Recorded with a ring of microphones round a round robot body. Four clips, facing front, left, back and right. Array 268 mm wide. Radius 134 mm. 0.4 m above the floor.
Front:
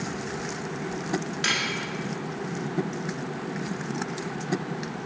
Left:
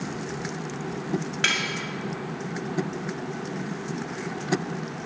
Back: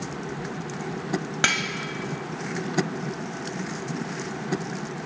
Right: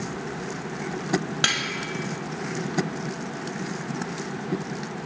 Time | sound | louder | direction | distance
1.4 | cutlery clinking | even, back 3 dB | 165° right | 1.5 m